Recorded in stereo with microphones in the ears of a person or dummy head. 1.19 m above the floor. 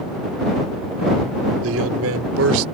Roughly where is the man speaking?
Right.